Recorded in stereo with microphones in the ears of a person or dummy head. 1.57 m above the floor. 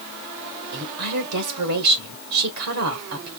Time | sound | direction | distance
0.7 | a woman speaking | 80° right | 1.1 m